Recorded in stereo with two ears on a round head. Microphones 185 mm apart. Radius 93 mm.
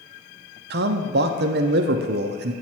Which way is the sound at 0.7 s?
55° right (ahead or behind).